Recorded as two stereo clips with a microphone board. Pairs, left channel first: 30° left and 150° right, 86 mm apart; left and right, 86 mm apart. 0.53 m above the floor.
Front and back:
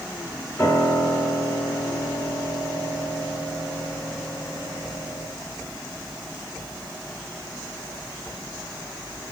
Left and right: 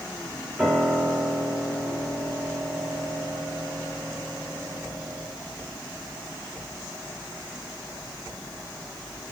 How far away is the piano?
About 1.3 m.